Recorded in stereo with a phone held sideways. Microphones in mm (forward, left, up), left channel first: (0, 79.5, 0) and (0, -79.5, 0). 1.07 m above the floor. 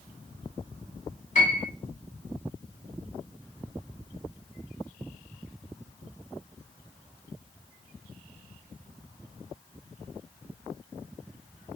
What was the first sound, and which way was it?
A piano, 50° left (ahead or behind).